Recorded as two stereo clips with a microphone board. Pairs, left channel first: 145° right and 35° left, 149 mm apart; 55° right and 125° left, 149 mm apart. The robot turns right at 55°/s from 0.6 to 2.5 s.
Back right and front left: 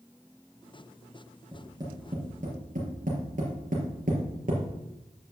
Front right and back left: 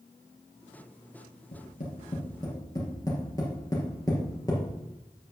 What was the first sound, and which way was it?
Tapping, 45° right.